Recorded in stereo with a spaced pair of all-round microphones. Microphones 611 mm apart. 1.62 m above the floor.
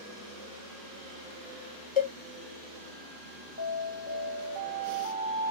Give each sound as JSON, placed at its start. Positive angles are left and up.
{"t": 2.0, "sound": "a cowbell", "side_deg": 50, "distance_m": 0.7}
{"t": 3.6, "sound": "an alarm", "side_deg": -15, "distance_m": 1.1}